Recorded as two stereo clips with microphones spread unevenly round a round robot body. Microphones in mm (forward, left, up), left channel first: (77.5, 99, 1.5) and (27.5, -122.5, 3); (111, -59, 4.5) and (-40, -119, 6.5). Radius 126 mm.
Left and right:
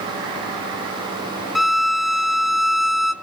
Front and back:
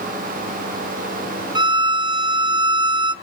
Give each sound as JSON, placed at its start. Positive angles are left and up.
{"t": 1.6, "sound": "a violin", "azimuth_deg": 170, "distance_m": 0.8}